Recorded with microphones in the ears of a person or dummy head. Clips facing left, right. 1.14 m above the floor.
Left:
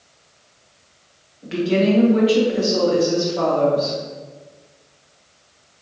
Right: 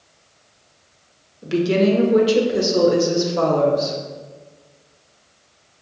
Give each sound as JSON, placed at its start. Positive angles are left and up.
{"t": 1.4, "sound": "a woman speaking", "side_deg": -50, "distance_m": 0.9}